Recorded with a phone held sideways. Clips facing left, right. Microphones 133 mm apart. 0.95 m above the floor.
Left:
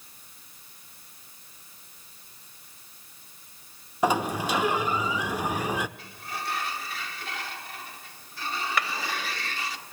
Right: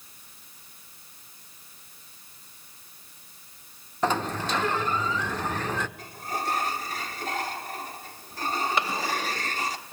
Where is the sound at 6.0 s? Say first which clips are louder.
Right 5 dB; 40° right (ahead or behind), 1.5 m.